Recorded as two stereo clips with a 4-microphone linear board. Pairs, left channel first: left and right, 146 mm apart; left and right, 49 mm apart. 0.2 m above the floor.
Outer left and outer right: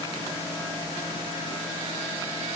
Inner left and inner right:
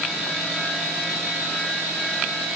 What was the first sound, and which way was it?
Only background noise.